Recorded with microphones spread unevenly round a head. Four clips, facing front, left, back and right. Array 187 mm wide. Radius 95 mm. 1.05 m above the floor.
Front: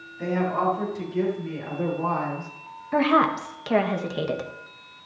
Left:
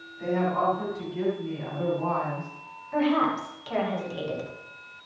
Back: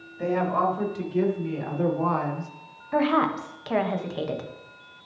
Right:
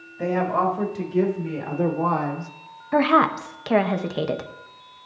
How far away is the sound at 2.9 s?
About 1.3 m.